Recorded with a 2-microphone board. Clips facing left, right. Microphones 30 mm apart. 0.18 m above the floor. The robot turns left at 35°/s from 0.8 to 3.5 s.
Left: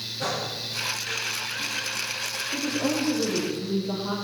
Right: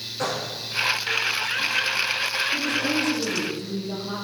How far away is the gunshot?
About 9 m.